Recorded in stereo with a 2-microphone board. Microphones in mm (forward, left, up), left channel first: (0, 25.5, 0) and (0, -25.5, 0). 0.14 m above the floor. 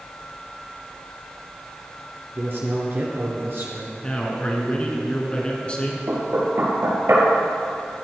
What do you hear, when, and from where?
2.4 s a man speaking: 45° right (ahead or behind), 2.0 m
4.0 s a man speaking: 25° left (ahead or behind), 1.8 m
6.1 s knocking: 65° right (ahead or behind), 2 m